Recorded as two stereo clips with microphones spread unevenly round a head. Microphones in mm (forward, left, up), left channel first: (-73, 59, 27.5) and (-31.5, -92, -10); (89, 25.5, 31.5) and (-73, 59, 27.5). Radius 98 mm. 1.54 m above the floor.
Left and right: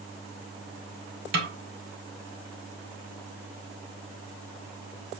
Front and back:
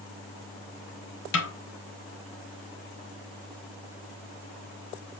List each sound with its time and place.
1.3 s a snare drum: 35° right, 1.4 m